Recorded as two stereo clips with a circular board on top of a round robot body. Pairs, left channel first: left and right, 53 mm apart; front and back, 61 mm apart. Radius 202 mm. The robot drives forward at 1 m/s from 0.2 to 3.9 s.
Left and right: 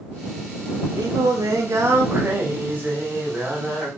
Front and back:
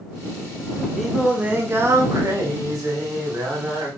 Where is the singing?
90° right, 1.1 m; by 3.9 s 160° right, 3 m.